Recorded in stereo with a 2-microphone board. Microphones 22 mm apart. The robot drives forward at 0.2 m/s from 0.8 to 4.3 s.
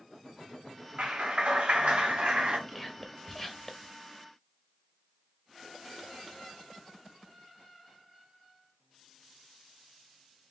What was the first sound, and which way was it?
A clap, 70° right (ahead or behind).